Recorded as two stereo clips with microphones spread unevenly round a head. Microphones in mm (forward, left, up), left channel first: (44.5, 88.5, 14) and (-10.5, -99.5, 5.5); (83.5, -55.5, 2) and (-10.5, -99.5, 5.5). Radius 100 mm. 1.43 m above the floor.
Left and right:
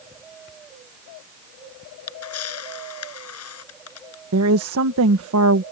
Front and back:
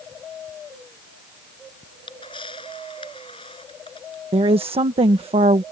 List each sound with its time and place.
1.8 s a camera shutter: 95° left
4.3 s a woman speaking: 130° right